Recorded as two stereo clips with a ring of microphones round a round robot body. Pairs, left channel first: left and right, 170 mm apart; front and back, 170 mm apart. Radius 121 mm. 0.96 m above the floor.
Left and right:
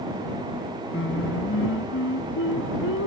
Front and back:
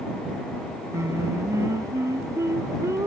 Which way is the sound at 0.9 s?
105° left.